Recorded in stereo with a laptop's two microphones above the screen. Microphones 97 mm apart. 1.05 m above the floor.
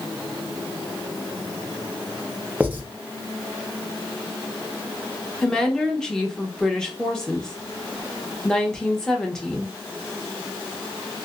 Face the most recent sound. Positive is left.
turn(degrees=5)  # may be behind; listen again after turning